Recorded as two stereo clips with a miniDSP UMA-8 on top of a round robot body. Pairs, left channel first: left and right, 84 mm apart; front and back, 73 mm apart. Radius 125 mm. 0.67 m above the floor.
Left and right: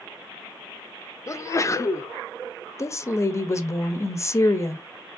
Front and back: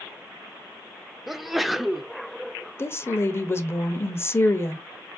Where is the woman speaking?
45° left, 0.6 m.